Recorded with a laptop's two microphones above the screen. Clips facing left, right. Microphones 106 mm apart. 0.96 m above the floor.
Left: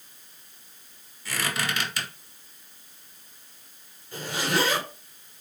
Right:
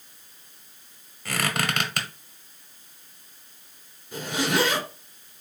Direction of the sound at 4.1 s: 15° right (ahead or behind).